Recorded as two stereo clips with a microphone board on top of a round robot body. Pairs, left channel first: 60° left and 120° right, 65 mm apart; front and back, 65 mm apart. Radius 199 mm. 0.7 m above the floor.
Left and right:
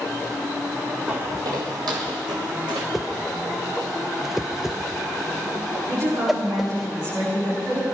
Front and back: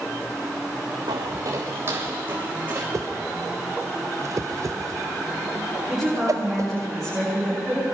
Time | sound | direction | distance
1.1 | footsteps | 165° left | 0.8 m
2.9 | a whoosh | 155° left | 0.8 m
5.9 | a woman speaking | 85° right | 7 m